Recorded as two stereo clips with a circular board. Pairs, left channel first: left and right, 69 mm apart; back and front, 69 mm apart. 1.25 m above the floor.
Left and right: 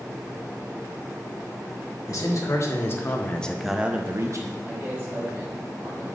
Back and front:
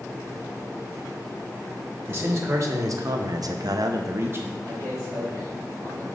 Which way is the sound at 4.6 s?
25° right.